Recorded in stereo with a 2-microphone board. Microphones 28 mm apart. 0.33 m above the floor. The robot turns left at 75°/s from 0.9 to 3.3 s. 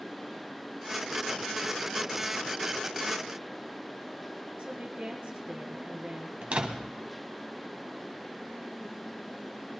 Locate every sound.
4.6 s a woman speaking: 50° right (ahead or behind), 4.5 m
6.4 s a door slam: 50° right (ahead or behind), 1.7 m